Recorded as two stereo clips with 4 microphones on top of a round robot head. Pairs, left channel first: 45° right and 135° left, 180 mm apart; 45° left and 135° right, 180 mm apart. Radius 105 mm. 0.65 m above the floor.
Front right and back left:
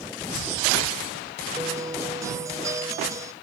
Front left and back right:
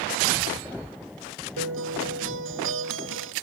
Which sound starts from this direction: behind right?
A guitar, at 1.6 s.